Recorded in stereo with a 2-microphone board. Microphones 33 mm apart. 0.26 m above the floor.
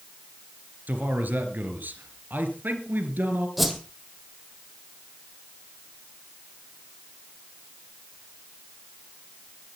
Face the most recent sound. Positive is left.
turn(degrees=-5)  # may be behind; listen again after turning